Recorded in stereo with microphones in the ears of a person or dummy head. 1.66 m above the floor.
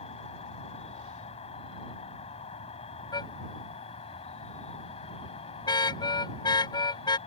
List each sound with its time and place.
0.0 s an insect: 30° left (ahead or behind)
3.1 s a car horn: 20° left (ahead or behind)